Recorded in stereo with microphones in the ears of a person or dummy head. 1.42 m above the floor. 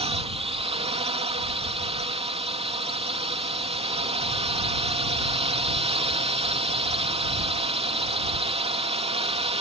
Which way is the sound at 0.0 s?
30° right (ahead or behind).